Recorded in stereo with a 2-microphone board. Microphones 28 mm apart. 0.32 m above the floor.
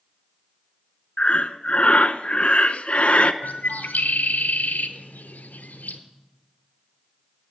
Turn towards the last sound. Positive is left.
turn(degrees=80)